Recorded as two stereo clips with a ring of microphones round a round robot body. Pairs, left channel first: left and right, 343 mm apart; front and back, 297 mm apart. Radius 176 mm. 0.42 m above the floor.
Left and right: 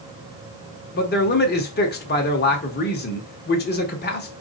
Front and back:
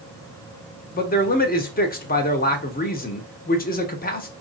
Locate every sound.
0.9 s a man speaking: 45° left, 1.0 m